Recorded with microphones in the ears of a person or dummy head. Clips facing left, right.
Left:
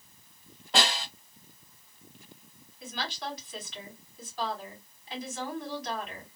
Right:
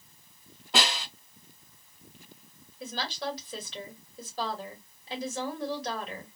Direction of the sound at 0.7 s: 5° right (ahead or behind).